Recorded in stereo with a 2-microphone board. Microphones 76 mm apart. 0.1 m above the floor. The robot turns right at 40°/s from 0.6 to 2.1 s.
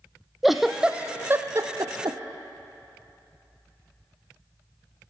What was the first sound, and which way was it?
A giggle, 5° right (ahead or behind).